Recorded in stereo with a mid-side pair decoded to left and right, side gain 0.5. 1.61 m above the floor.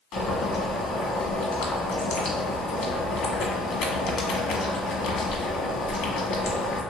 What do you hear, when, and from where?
0.1 s boiling: 65° left, 1.0 m